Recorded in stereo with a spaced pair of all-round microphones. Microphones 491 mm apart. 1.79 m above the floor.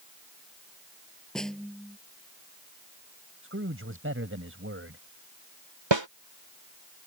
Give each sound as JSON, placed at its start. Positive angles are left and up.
{"t": 1.4, "sound": "a snare drum", "side_deg": 0}
{"t": 3.4, "sound": "a man speaking", "side_deg": -25}
{"t": 5.9, "sound": "a snare drum", "side_deg": -60}